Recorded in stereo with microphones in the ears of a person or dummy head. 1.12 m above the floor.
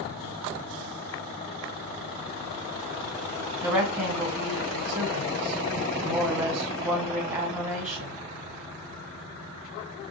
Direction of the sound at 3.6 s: 10° right (ahead or behind).